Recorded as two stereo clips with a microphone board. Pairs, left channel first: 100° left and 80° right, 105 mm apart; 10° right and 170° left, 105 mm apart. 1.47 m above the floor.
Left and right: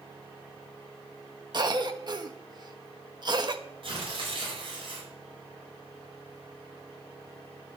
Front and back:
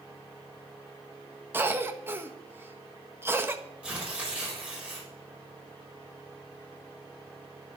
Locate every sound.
1.5 s a cough: 125° right, 1.5 m
3.8 s tearing paper: 115° right, 5.5 m